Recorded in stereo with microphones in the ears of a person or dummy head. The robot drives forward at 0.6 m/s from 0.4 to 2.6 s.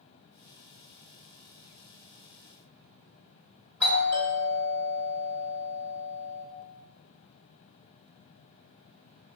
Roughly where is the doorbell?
Centre.